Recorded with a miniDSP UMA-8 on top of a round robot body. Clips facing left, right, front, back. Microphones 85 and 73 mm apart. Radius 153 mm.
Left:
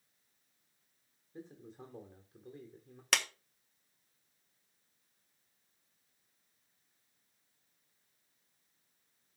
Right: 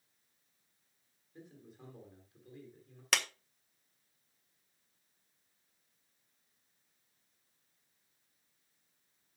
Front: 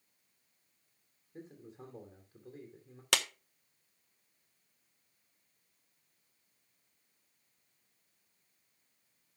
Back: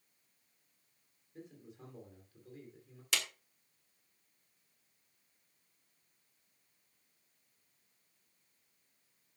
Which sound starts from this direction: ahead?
A clap, at 3.1 s.